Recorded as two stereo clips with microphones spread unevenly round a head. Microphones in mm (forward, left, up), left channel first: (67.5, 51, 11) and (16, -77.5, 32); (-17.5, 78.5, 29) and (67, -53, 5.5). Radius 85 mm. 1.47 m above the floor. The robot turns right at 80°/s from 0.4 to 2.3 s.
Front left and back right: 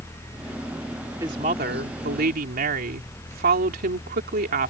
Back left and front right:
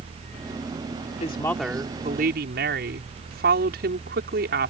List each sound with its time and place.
1.2 s a woman speaking: 175° left; by 4.7 s 95° right